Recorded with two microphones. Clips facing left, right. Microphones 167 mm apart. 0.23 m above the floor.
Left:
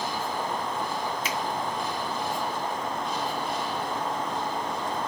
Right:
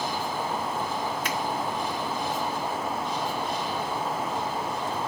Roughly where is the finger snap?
Right.